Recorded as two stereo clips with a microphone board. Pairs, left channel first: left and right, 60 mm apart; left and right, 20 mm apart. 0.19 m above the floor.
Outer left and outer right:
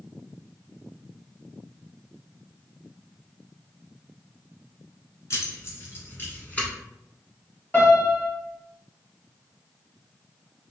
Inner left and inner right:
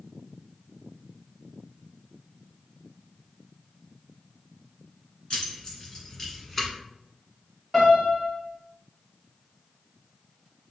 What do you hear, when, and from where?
5.3 s keys jangling: 50° left (ahead or behind), 1.4 m; by 6.7 s 20° left (ahead or behind), 1.1 m
7.7 s a piano: 25° left (ahead or behind), 1.7 m